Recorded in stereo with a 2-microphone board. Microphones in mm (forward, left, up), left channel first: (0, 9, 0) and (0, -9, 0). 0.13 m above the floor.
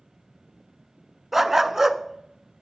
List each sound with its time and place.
1.3 s a dog barking: 20° right (ahead or behind), 0.5 m